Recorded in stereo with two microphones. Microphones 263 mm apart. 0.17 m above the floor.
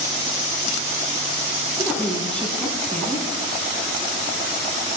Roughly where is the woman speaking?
Centre.